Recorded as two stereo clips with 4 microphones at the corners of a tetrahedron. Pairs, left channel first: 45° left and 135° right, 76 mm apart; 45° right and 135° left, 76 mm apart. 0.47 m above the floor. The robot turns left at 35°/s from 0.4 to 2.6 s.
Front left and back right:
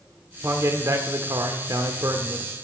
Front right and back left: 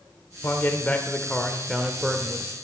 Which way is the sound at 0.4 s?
90° right.